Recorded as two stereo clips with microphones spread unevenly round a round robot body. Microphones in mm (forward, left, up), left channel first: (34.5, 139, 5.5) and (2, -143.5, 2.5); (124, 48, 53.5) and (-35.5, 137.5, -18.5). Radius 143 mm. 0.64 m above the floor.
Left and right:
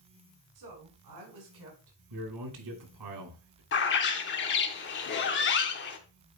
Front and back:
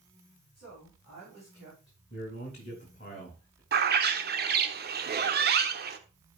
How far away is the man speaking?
About 3 m.